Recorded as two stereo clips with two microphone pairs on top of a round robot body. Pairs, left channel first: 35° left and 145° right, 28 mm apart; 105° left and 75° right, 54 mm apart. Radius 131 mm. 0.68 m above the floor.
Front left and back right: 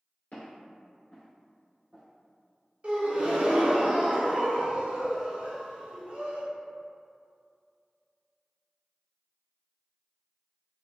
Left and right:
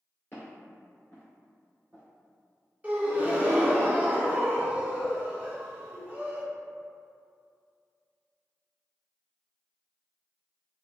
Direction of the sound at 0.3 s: 50° left.